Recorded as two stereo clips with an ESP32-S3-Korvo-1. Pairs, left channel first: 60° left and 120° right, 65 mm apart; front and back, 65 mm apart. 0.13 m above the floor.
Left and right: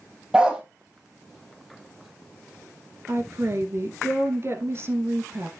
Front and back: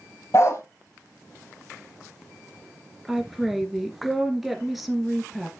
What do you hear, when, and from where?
0.3 s a dog barking: 40° right, 1.6 m
3.1 s a woman speaking: 95° right, 1.7 m